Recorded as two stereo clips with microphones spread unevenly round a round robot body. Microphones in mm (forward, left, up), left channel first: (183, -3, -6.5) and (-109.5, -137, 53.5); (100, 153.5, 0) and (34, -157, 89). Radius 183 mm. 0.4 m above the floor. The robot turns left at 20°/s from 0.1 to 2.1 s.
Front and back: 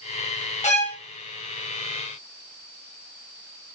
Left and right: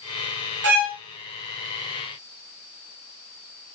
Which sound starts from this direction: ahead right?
A violin, at 0.6 s.